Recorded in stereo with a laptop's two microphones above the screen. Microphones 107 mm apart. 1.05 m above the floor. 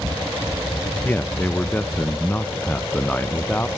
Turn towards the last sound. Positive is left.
turn(degrees=15)  # may be behind; listen again after turning